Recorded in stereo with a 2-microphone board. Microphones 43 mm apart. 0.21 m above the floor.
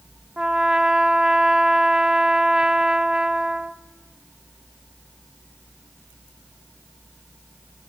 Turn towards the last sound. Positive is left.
turn(degrees=-20)  # may be behind; listen again after turning